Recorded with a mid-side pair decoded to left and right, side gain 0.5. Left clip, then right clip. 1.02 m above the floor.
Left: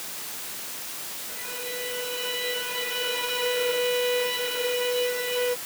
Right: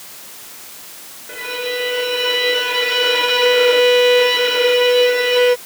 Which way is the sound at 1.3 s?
70° right.